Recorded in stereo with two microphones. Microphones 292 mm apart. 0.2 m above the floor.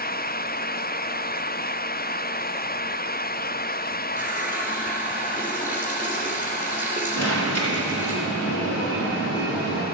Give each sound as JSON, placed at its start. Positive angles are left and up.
{"t": 4.2, "sound": "a running tap", "side_deg": -5, "distance_m": 2.5}
{"t": 7.2, "sound": "an alarm", "side_deg": 60, "distance_m": 3.5}